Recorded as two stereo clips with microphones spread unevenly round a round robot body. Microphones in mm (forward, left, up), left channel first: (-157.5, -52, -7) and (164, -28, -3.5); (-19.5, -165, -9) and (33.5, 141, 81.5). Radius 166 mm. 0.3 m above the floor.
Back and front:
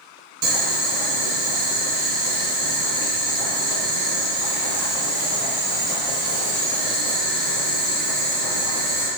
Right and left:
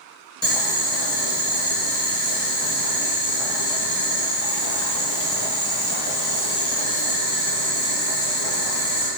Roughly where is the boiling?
Ahead right.